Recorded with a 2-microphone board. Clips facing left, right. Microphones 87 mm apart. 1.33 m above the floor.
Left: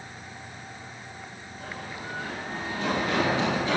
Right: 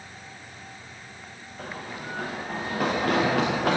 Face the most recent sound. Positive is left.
turn(degrees=-75)  # may be behind; listen again after turning